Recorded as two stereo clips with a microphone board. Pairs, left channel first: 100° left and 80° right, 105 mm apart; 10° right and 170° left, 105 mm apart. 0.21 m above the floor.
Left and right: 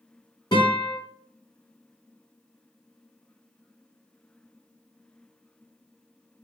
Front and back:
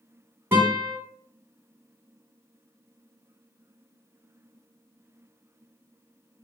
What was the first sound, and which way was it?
A guitar, 105° left.